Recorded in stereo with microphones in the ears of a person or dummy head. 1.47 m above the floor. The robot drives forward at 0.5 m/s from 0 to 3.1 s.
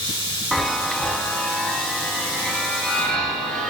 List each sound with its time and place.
0.5 s a chime: centre (ahead or behind), 0.7 m